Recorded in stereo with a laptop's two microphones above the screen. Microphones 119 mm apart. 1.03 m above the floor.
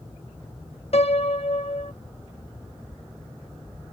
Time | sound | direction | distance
0.9 | a piano | 60° left (ahead or behind) | ?